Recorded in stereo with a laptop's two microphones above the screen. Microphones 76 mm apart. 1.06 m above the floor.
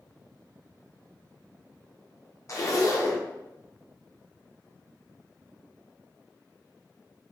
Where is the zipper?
40° left (ahead or behind), 0.6 m.